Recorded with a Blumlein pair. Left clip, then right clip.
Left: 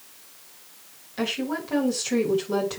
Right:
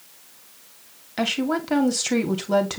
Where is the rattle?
I don't hear a rattle.